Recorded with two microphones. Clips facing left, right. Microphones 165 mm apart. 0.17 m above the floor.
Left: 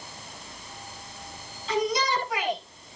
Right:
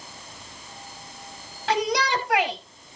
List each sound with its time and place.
1.7 s a shout: 70° right (ahead or behind), 3.5 m